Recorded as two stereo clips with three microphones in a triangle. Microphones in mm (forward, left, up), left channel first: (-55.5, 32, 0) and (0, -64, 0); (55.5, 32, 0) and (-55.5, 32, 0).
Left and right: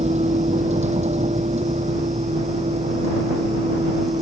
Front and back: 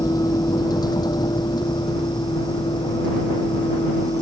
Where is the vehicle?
55° right; by 4.2 s 45° right.